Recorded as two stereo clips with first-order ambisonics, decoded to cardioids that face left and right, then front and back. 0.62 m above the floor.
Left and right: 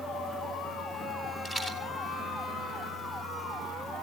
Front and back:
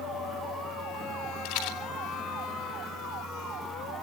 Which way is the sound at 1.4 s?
15° left.